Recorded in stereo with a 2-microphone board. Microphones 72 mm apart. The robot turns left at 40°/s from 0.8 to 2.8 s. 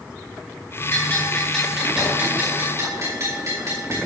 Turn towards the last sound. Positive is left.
turn(degrees=-45)